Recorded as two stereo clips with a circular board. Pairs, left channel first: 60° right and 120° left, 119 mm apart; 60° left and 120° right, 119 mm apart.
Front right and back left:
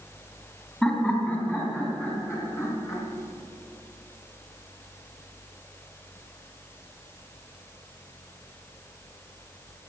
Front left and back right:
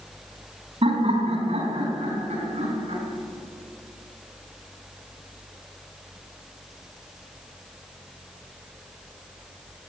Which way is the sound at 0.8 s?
140° right.